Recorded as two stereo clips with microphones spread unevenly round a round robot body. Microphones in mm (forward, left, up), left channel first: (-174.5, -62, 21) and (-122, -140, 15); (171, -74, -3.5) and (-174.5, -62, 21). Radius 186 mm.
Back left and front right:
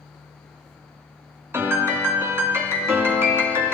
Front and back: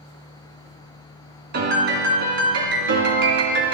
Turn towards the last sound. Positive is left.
turn(degrees=-120)